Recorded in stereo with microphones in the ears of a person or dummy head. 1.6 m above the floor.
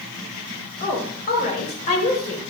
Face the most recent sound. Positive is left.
turn(degrees=35)  # may be behind; listen again after turning